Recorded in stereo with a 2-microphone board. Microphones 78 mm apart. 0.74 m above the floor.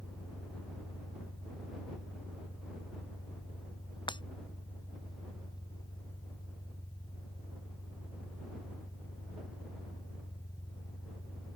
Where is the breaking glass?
80° left.